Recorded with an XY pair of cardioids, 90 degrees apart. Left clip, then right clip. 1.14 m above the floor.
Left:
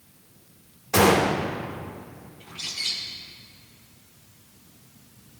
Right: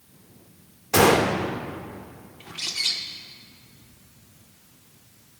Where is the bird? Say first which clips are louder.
Right 3 dB; 65° right, 1.8 m.